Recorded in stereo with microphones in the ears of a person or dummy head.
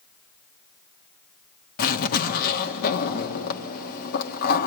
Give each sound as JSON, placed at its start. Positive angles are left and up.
{"t": 1.8, "sound": "a zipper", "side_deg": 50, "distance_m": 1.6}